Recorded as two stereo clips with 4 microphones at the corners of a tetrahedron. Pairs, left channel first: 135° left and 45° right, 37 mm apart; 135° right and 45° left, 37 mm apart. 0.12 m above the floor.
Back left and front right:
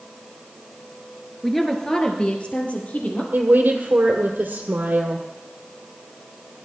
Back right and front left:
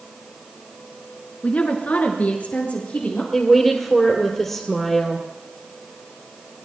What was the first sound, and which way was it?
A woman speaking, 135° right.